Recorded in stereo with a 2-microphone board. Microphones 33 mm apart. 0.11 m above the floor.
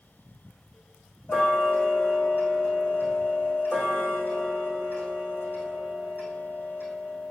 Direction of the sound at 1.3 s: 70° left (ahead or behind).